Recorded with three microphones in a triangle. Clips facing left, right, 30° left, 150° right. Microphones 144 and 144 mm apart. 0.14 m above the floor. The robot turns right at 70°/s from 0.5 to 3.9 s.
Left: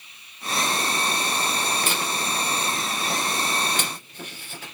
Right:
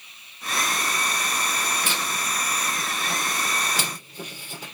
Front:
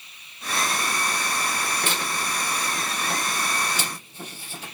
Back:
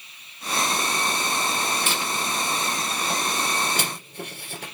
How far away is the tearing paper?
About 2.5 m.